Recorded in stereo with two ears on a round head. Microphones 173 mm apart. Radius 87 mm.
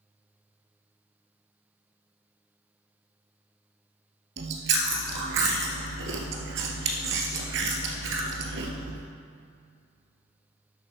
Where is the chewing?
65° right (ahead or behind), 1.3 m.